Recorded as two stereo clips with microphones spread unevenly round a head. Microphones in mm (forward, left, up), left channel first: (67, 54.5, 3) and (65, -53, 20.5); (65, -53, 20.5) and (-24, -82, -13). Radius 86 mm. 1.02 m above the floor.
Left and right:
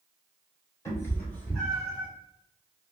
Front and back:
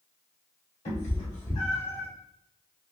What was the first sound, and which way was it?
A cat meowing, 20° left.